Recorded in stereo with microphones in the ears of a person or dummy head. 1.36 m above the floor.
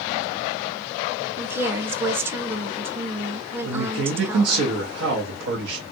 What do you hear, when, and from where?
1.4 s a woman speaking: 10° right (ahead or behind), 0.7 m
3.6 s a man speaking: 80° right, 1.2 m